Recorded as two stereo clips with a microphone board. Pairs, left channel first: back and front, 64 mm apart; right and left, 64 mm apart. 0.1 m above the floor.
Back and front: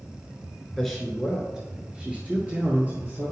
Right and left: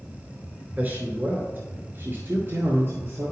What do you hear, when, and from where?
0.8 s a man speaking: 100° left, 1.4 m; by 3.3 s 50° left, 2 m